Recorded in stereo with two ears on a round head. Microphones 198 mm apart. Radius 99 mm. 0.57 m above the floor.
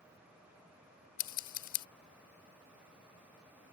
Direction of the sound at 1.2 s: 65° left (ahead or behind).